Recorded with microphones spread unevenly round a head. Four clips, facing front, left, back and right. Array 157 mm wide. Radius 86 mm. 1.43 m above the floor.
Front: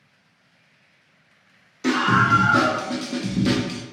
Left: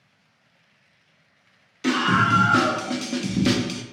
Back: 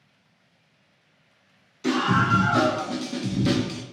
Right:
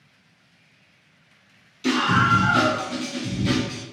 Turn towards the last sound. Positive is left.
turn(degrees=100)